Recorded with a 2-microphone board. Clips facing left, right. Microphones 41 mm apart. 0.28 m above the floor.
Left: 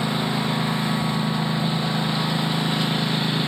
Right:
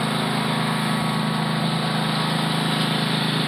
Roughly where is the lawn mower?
Centre.